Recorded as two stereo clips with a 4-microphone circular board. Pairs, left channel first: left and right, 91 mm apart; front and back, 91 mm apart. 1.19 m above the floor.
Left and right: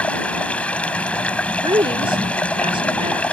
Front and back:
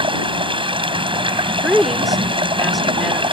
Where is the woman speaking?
90° right.